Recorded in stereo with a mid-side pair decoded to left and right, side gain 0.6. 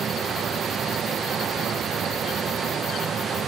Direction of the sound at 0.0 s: 35° right.